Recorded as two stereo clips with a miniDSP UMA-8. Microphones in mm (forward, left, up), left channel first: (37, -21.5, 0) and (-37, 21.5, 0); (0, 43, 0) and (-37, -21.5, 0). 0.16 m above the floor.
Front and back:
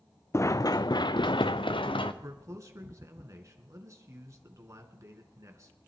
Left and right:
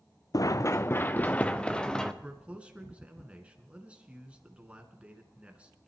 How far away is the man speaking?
About 2 m.